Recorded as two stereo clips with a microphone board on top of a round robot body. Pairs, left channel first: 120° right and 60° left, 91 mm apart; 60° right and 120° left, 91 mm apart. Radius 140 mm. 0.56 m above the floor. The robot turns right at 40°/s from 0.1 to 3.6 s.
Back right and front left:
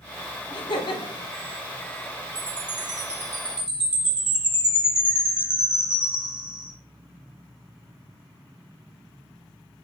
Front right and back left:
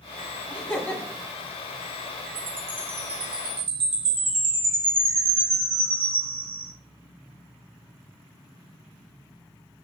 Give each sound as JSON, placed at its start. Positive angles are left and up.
{"t": 0.5, "sound": "laughter", "azimuth_deg": -140, "distance_m": 1.4}
{"t": 2.4, "sound": "a chime", "azimuth_deg": 90, "distance_m": 1.0}